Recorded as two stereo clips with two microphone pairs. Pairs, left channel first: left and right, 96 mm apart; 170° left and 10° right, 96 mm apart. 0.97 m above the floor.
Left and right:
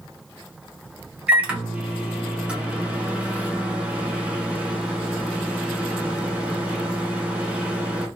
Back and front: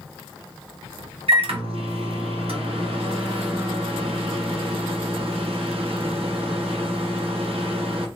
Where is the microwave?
15° right, 0.8 m.